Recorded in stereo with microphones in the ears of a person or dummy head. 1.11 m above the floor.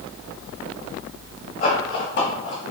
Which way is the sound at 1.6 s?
50° left (ahead or behind).